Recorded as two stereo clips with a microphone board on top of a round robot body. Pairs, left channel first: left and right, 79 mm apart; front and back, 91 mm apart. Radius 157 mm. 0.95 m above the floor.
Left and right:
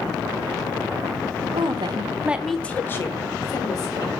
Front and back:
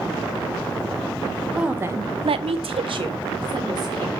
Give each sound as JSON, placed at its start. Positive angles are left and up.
{"t": 1.5, "sound": "a woman speaking", "azimuth_deg": -95, "distance_m": 1.0}